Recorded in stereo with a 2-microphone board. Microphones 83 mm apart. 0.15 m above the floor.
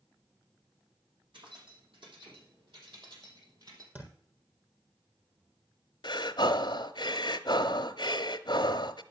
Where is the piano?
No piano in this recording.